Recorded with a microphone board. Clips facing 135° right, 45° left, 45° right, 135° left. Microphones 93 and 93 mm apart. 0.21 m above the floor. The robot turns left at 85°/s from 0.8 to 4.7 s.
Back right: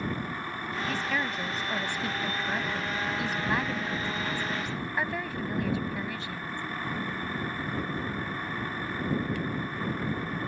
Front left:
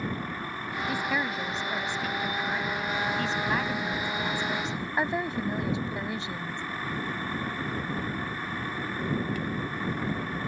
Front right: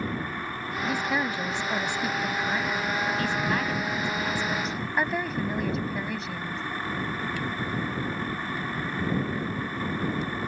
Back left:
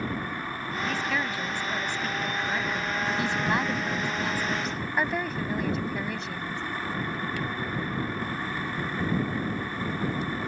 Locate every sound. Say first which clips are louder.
0.9 s a woman speaking: front left 2 dB, front right 3 dB; 5° left; by 6.6 s 40° left